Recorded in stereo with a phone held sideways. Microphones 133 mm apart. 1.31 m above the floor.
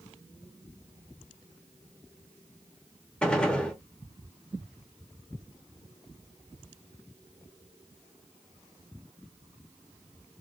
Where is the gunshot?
5° left (ahead or behind), 0.8 m.